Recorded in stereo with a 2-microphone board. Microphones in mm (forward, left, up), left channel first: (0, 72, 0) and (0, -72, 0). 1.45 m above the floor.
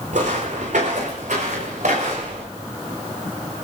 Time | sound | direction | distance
0.1 | footsteps | 70° right (ahead or behind) | 4.5 m